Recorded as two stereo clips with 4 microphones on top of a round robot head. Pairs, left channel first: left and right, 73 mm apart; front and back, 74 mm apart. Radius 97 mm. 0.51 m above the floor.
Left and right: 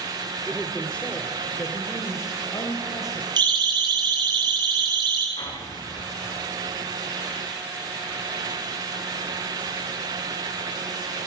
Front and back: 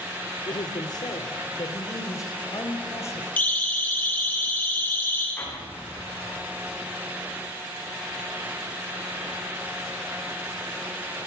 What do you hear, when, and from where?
0.5 s a man speaking: straight ahead, 2 m; by 3.3 s 50° left, 4 m
3.4 s a siren: 75° right, 10 m; by 5.3 s 70° right, 9.5 m
5.4 s an explosion: 65° left, 9.5 m